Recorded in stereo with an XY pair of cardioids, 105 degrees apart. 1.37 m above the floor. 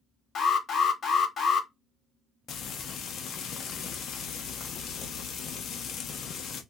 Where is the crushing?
I don't hear crushing.